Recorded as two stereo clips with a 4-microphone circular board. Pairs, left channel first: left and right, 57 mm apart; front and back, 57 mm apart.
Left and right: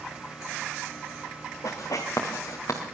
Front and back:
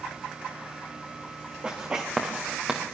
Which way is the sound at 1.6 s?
105° left.